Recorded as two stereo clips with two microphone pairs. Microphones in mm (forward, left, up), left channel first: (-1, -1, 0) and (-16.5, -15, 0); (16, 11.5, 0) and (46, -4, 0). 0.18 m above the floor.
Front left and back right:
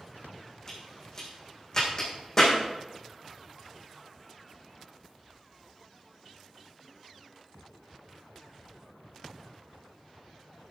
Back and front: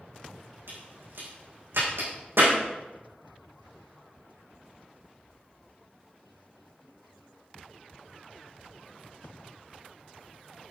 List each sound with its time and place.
0.7 s a crack: 30° right, 6 m